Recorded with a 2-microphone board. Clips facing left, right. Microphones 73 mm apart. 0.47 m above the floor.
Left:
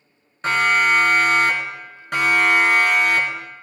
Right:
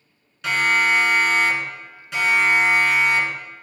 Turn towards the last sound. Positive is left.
turn(degrees=75)  # may be behind; listen again after turning